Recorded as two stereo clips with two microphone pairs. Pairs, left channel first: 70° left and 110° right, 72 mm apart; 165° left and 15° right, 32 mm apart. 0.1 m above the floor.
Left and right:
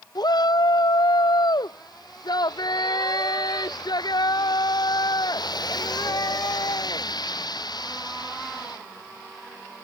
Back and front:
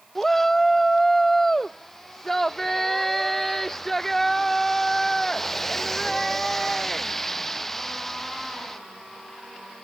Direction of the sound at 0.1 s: 85° left.